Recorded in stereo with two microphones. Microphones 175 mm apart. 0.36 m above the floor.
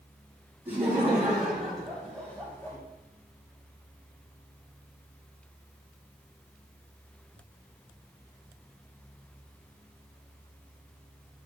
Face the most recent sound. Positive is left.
turn(degrees=15)  # may be behind; listen again after turning